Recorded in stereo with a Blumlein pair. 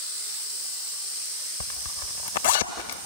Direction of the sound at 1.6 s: 60° left.